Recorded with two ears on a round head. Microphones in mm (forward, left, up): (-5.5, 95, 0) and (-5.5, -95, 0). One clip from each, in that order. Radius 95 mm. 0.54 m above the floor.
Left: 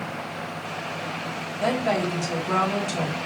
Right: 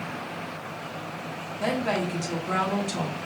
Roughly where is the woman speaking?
Centre.